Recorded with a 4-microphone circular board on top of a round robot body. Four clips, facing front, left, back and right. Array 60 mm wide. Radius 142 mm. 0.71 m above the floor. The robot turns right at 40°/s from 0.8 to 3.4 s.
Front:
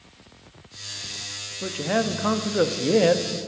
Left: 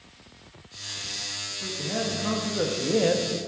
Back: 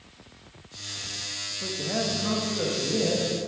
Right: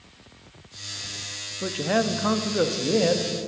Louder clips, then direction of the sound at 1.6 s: Right 7 dB, front 6 dB; 60° right.